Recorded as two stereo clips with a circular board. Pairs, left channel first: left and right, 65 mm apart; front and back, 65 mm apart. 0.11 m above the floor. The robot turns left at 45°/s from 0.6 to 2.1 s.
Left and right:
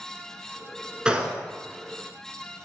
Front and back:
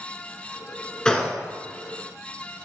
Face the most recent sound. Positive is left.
turn(degrees=-95)